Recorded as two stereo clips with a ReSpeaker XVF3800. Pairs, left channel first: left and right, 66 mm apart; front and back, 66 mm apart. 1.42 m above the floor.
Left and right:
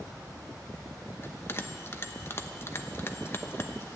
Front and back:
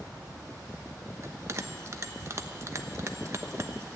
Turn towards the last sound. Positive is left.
turn(degrees=140)